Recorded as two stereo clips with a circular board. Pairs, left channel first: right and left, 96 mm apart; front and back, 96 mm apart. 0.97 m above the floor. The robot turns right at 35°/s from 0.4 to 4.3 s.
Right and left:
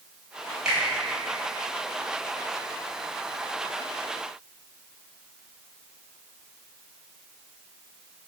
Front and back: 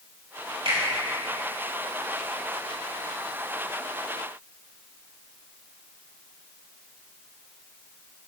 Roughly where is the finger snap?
Behind.